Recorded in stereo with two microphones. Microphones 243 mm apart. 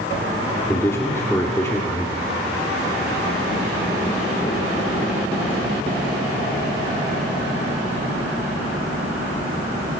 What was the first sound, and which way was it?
A man speaking, 10° left (ahead or behind).